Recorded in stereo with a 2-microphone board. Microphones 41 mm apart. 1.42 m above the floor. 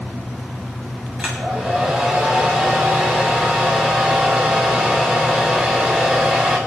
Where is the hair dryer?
20° right (ahead or behind), 6.5 m.